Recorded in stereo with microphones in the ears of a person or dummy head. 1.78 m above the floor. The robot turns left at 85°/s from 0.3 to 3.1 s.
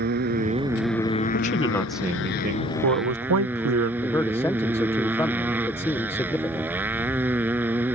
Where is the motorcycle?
130° right; by 8.0 s 10° right.